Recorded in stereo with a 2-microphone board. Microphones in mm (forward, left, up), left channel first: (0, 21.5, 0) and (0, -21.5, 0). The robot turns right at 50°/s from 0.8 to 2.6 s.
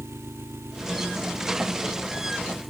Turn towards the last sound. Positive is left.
turn(degrees=5)